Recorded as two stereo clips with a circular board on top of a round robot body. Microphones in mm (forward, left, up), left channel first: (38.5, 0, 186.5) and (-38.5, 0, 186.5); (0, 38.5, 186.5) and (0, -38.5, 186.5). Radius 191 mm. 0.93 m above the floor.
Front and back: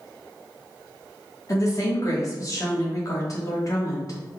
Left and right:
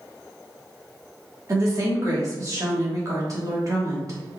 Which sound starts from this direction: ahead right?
A woman speaking, at 1.5 s.